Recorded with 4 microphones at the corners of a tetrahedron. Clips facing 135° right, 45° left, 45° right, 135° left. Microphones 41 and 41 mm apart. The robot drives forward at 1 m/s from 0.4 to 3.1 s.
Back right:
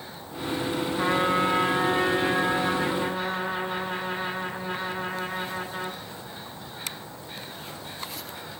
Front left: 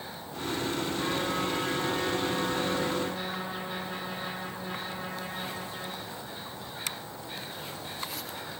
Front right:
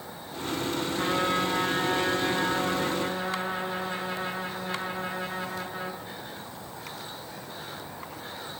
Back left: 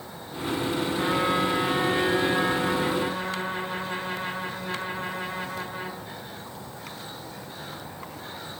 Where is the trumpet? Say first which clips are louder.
Back right 10 dB, back left 2 dB; 140° right, 1.4 m; by 6.0 s 170° right, 3 m.